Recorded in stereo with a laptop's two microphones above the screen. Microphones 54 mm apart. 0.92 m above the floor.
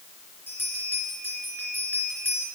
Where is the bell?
40° left (ahead or behind), 3 m.